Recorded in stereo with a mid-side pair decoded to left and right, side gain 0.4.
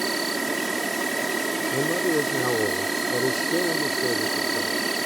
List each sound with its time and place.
0.0 s an insect: 20° right
1.7 s a man speaking: 5° left